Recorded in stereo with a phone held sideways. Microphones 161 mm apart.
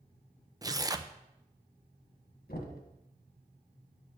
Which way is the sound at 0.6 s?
25° right (ahead or behind).